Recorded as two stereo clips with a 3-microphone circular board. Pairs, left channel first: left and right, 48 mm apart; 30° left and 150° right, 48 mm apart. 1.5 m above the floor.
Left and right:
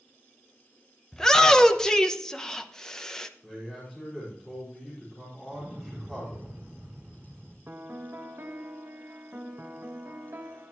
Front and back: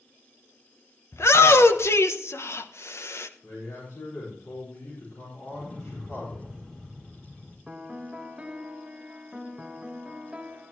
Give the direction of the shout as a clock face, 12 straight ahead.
12 o'clock.